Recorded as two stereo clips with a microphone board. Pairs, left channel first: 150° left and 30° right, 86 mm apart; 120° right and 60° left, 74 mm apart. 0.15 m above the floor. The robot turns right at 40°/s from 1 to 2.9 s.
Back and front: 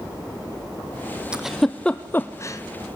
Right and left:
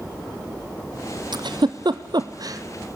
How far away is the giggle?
About 1.2 m.